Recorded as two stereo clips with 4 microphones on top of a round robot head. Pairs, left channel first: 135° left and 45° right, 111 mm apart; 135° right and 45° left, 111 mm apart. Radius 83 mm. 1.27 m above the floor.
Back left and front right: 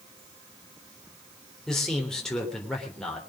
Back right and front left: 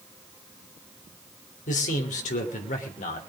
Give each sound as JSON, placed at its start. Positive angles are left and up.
{"t": 1.7, "sound": "a man speaking", "azimuth_deg": -140, "distance_m": 3.5}